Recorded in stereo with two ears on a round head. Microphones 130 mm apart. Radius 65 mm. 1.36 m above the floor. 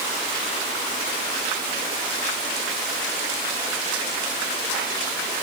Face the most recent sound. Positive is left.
No sound to turn to.